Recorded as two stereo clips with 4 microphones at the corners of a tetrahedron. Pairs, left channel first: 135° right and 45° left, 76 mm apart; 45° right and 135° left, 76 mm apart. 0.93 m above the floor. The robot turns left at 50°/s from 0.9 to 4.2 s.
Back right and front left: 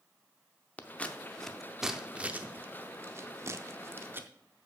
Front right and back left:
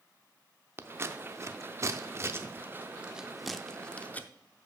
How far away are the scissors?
About 0.6 m.